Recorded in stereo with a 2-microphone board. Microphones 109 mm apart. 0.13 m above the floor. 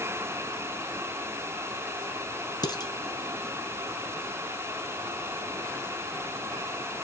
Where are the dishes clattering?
40° left (ahead or behind), 1.0 m.